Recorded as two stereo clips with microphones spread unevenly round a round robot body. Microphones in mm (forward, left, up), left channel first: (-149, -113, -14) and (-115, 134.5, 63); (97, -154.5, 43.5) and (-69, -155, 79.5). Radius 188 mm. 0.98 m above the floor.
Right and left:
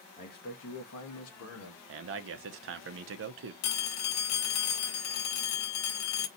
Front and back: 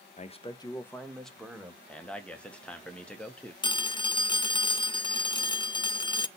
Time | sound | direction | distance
0.2 | a man speaking | 45° right | 0.9 m
1.9 | a man speaking | 55° left | 0.6 m
3.6 | a phone ringing | 70° right | 0.7 m